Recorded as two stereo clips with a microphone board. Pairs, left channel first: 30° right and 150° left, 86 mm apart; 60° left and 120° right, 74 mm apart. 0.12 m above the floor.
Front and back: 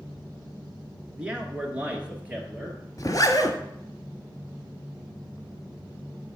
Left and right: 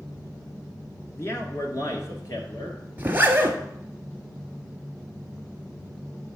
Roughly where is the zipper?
Ahead right.